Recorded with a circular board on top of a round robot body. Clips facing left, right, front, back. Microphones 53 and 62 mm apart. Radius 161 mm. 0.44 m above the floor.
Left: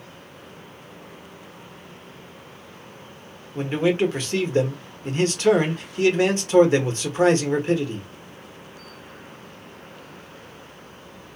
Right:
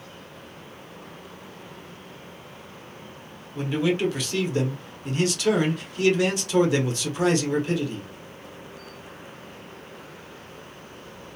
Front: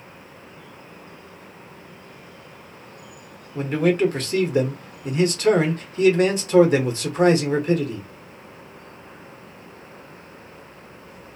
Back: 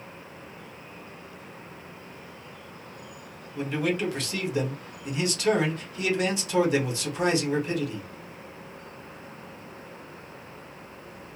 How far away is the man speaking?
About 1.5 m.